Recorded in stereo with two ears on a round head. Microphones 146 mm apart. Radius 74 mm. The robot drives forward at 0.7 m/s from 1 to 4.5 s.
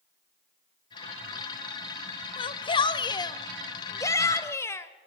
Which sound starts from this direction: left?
A shout, at 2.4 s.